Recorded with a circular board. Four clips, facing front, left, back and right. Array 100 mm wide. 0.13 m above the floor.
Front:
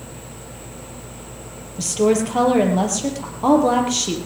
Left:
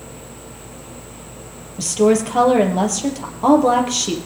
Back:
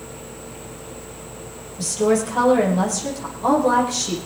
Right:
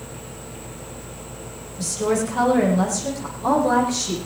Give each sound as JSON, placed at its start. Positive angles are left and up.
{"t": 1.8, "sound": "a woman speaking", "azimuth_deg": 60, "distance_m": 4.5}